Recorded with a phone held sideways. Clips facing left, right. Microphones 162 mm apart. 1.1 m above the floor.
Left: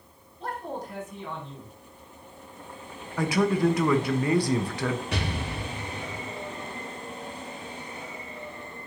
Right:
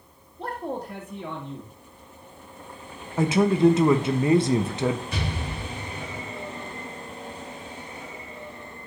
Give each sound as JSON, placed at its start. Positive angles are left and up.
{"t": 0.4, "sound": "a man speaking", "side_deg": -60, "distance_m": 1.6}
{"t": 3.2, "sound": "a man speaking", "side_deg": -25, "distance_m": 0.6}
{"t": 5.1, "sound": "an explosion", "side_deg": 70, "distance_m": 1.6}